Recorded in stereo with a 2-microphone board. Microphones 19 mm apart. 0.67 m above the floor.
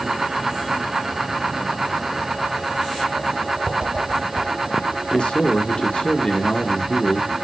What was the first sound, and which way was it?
A whoosh, 50° right (ahead or behind).